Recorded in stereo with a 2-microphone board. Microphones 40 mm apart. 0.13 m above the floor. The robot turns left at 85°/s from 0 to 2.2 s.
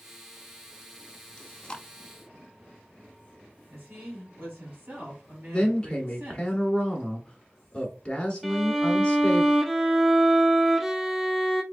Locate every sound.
1.4 s chewing: 25° left (ahead or behind), 0.6 m
3.7 s a woman speaking: 55° right (ahead or behind), 2.5 m
5.5 s a woman speaking: 20° left (ahead or behind), 1.1 m
8.4 s a violin: centre (ahead or behind), 0.6 m